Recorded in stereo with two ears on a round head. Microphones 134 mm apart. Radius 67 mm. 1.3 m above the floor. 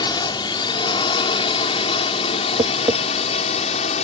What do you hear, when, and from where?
0.0 s a drone: 30° left (ahead or behind); by 4.0 s 45° left (ahead or behind)
2.6 s tapping: 30° right (ahead or behind)